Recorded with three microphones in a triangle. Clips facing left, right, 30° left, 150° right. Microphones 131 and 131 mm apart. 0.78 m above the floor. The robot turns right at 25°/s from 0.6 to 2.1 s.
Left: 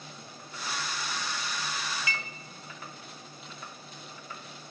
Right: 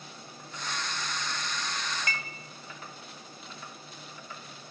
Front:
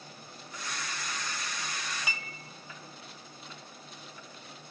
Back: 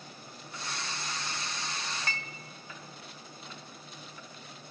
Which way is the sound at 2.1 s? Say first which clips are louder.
Even, back 1 dB; 50° right.